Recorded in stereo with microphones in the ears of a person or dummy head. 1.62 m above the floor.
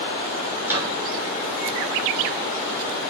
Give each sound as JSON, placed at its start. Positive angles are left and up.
{"t": 0.6, "sound": "a microwave", "side_deg": -15, "distance_m": 6.0}